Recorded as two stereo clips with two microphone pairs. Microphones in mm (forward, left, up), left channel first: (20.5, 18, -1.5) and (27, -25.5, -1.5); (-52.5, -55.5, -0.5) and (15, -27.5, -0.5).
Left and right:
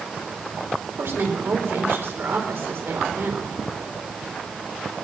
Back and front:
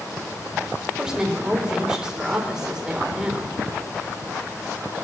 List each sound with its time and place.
1.0 s a woman speaking: 60° right, 4 m